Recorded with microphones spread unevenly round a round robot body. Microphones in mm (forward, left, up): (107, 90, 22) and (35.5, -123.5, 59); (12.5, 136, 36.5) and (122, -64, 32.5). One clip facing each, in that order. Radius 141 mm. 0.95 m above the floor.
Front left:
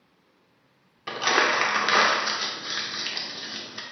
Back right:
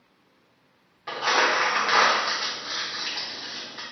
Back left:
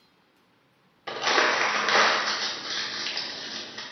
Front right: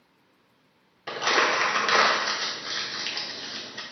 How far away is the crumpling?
About 0.6 m.